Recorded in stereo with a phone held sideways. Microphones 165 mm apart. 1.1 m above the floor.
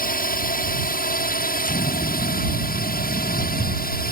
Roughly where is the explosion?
Left.